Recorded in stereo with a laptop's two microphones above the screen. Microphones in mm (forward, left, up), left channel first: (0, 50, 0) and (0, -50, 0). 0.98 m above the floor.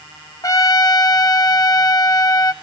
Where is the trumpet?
35° left (ahead or behind), 0.7 m.